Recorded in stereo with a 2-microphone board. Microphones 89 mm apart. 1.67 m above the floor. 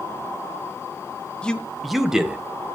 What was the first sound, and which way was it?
A man speaking, 10° left (ahead or behind).